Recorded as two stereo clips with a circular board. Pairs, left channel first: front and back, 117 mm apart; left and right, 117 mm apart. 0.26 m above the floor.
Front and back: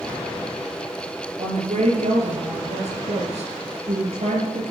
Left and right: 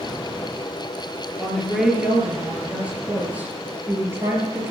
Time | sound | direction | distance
1.4 | a woman speaking | straight behind | 4 m